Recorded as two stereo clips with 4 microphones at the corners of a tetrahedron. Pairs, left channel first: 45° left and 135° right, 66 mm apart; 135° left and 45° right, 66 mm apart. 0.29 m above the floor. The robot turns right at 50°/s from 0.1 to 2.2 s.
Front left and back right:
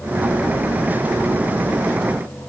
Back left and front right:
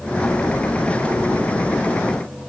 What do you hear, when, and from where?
Only background noise.